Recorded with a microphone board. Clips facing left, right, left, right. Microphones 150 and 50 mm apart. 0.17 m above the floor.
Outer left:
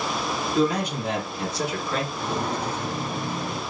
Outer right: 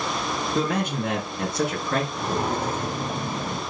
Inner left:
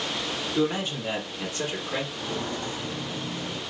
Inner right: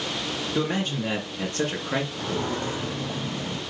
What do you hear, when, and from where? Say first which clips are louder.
0.6 s a man speaking: outer left 3 dB, inner left 1 dB; 65° right (ahead or behind), 3.5 m; by 2.0 s 55° right (ahead or behind), 2.5 m
2.1 s footsteps: outer right 2 dB, inner right 3 dB; 60° right (ahead or behind), 2.0 m; by 3.6 s 55° right (ahead or behind), 2.5 m